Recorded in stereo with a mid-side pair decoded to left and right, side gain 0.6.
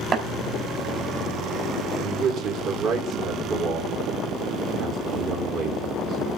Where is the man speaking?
60° right, 3.5 m.